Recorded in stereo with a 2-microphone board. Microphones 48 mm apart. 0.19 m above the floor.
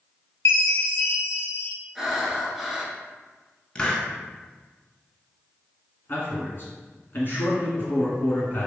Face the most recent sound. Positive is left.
turn(degrees=45)  # may be behind; listen again after turning